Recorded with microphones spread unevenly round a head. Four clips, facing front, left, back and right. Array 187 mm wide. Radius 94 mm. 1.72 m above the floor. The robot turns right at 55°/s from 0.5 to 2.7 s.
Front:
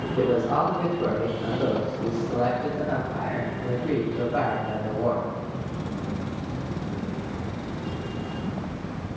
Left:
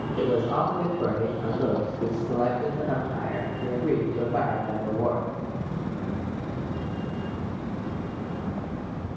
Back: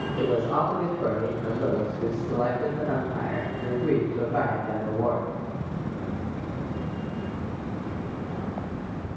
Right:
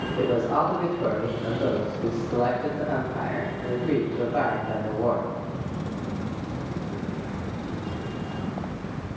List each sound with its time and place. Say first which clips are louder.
0.2 s a man speaking: right 1 dB, front 2 dB; 20° left, 0.9 m; by 5.2 s 140° left, 0.9 m